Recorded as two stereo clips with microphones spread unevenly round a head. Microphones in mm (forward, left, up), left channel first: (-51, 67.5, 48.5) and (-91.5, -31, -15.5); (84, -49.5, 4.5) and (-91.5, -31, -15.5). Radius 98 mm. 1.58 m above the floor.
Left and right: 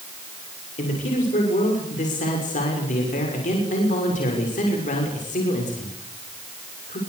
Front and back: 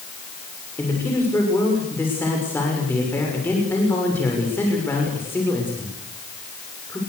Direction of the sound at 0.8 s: 75° left.